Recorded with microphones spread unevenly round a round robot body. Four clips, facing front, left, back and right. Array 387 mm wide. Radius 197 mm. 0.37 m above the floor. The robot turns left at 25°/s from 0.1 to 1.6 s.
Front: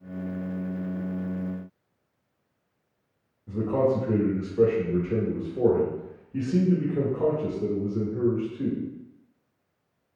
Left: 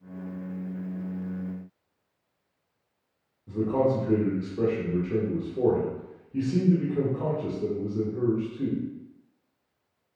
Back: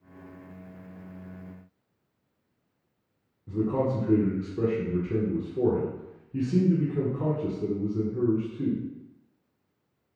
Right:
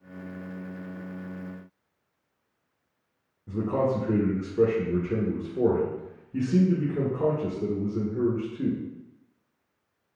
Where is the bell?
No bell in this recording.